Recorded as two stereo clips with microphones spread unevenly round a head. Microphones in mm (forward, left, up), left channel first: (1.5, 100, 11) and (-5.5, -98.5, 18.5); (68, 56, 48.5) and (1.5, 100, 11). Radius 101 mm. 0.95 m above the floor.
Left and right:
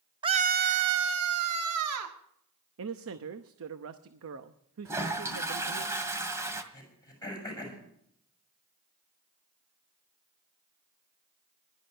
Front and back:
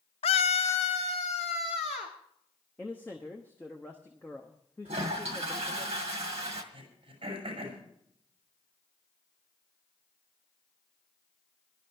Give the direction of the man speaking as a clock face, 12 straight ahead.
4 o'clock.